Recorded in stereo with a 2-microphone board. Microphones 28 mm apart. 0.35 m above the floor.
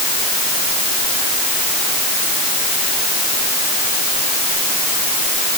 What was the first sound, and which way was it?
Only background noise.